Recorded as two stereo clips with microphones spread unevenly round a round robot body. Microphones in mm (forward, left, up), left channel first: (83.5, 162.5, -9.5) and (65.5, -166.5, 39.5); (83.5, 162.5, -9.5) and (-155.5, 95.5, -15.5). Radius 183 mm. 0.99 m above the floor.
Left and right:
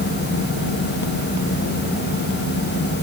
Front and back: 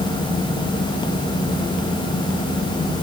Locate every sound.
Only background noise.